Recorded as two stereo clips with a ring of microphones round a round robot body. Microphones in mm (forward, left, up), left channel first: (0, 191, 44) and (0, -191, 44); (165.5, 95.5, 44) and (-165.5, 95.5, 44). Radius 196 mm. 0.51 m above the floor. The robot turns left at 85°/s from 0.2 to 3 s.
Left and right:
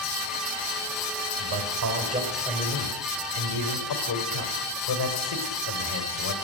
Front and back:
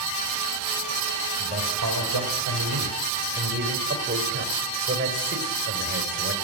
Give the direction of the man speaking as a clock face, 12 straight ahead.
3 o'clock.